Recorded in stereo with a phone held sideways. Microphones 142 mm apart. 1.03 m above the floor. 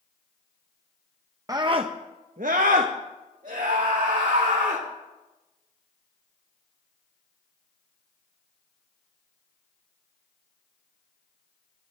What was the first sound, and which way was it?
A scream, 25° right (ahead or behind).